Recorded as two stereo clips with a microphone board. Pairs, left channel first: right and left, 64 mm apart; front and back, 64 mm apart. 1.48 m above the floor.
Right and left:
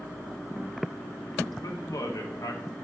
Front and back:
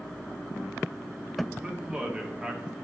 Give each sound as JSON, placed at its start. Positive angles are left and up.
{"t": 1.6, "sound": "a man speaking", "azimuth_deg": -105, "distance_m": 1.7}